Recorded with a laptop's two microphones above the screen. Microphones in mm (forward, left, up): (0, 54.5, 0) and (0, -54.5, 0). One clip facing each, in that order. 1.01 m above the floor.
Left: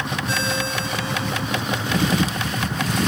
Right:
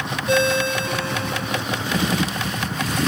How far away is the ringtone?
About 1.3 m.